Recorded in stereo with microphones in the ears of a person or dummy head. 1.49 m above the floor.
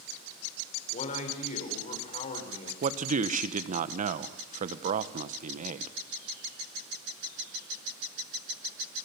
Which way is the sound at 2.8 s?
45° right (ahead or behind).